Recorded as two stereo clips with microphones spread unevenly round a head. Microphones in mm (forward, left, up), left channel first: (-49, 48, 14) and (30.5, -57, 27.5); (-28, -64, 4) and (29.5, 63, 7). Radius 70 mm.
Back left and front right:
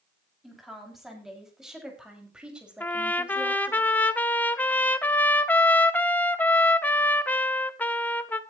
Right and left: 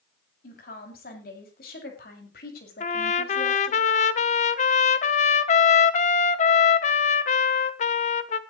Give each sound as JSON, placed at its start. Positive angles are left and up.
{"t": 0.4, "sound": "a woman speaking", "azimuth_deg": -140, "distance_m": 7.0}
{"t": 2.8, "sound": "a trumpet", "azimuth_deg": -155, "distance_m": 1.2}